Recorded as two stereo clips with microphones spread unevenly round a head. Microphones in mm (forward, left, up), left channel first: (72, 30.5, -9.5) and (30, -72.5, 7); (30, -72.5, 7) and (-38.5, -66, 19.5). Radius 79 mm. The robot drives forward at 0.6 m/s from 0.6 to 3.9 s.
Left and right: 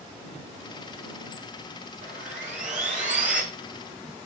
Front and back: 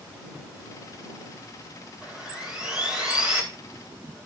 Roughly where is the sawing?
Right.